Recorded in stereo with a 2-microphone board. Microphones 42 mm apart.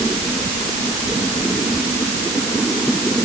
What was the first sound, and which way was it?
Only background noise.